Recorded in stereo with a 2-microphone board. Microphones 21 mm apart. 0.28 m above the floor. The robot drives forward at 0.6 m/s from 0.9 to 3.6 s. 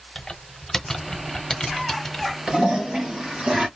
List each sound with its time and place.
0.1 s typing on a keyboard: 20° left (ahead or behind), 1.0 m; by 2.4 s 10° left (ahead or behind), 1.6 m
2.5 s a toilet flushing: 50° right (ahead or behind), 3 m; by 3.7 s 45° right (ahead or behind), 3.5 m